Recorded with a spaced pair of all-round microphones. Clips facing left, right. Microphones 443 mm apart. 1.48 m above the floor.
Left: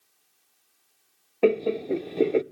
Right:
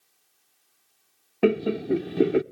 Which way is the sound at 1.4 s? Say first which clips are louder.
Even; 30° right (ahead or behind).